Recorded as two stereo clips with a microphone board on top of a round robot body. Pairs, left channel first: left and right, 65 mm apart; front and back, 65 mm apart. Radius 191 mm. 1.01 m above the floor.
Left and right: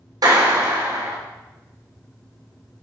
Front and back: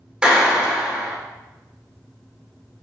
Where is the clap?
105° right, 3 m.